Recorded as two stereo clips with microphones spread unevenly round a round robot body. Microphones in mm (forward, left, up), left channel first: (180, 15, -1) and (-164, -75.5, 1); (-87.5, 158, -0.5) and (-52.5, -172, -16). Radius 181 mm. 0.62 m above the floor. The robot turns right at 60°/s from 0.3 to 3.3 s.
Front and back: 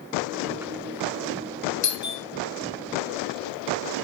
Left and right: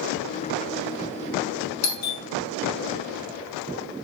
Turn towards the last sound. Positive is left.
turn(degrees=165)